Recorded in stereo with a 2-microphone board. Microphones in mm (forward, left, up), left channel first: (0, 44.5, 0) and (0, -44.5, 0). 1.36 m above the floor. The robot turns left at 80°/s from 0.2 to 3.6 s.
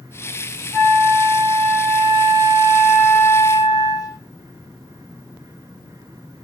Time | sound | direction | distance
0.7 | a flute | 5° left | 3 m